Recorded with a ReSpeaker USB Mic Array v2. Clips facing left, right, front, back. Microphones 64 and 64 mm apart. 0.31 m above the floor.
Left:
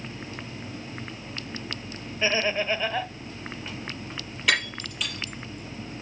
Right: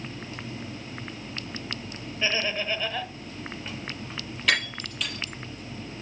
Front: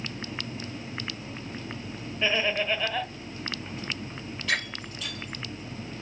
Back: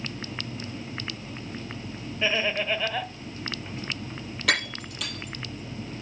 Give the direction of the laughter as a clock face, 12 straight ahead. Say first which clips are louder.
Left 3 dB, even; 9 o'clock.